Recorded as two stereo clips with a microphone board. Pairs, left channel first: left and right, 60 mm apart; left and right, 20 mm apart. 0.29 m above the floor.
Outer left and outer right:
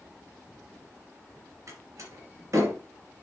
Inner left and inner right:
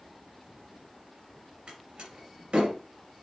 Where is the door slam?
50° right (ahead or behind), 3 m.